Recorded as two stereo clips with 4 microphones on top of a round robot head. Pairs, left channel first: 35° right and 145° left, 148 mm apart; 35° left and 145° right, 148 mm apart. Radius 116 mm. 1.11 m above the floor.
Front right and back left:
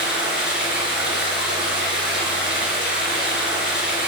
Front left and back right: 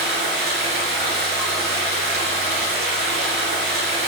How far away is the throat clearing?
No throat clearing in this recording.